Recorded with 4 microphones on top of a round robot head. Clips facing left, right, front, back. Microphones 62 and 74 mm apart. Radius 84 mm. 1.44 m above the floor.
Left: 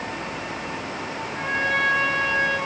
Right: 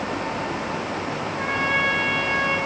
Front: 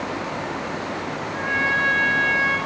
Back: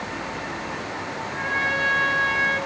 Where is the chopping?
I don't hear chopping.